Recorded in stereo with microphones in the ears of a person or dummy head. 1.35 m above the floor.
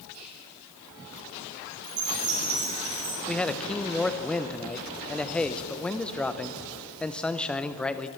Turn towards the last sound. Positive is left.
turn(degrees=5)  # may be behind; listen again after turning